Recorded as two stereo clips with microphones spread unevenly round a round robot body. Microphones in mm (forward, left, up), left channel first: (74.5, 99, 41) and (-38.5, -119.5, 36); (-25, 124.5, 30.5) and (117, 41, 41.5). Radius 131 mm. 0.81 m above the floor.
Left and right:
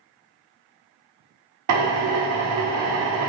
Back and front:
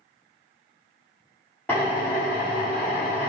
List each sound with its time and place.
1.7 s a drill: 130° right, 1.4 m